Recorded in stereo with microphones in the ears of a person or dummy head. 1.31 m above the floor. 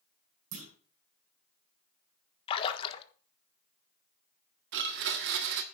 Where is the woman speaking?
I don't hear a woman speaking.